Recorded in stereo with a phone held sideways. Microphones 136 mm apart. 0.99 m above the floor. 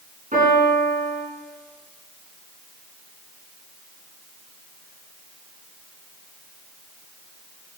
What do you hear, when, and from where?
0.3 s a piano: 65° right (ahead or behind), 6 m